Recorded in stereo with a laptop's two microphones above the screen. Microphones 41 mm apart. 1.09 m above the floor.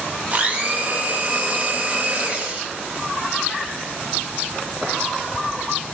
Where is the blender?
30° right (ahead or behind), 0.6 m.